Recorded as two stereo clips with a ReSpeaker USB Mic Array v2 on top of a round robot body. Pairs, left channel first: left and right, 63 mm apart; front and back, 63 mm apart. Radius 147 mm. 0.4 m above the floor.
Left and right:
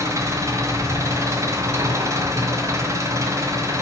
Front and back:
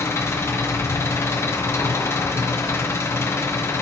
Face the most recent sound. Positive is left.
turn(degrees=-50)